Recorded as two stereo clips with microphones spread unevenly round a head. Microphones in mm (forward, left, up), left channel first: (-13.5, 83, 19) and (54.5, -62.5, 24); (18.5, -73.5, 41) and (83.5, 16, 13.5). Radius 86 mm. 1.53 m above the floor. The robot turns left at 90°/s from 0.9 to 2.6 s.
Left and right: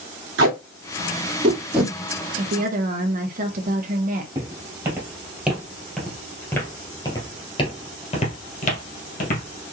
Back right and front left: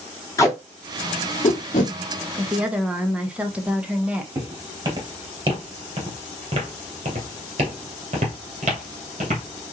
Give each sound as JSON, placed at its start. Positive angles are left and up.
{"t": 0.4, "sound": "tape being pulled", "azimuth_deg": -70, "distance_m": 2.0}
{"t": 2.4, "sound": "a woman speaking", "azimuth_deg": -10, "distance_m": 1.3}
{"t": 4.3, "sound": "footsteps", "azimuth_deg": -5, "distance_m": 2.0}